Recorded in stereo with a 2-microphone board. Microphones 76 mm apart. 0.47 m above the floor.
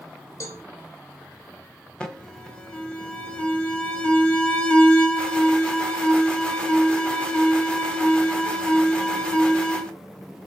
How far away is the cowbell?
About 2 m.